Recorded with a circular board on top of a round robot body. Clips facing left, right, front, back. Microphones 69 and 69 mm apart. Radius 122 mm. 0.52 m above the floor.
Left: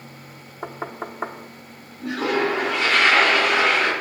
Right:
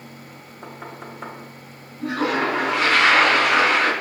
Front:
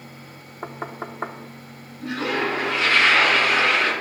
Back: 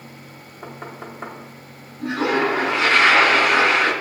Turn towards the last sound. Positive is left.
turn(degrees=-125)